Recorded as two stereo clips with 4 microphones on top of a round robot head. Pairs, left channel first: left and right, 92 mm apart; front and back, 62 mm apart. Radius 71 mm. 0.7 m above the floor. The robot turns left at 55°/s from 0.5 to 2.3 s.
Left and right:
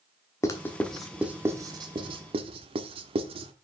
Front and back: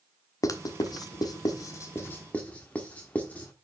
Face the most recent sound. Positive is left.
turn(degrees=-70)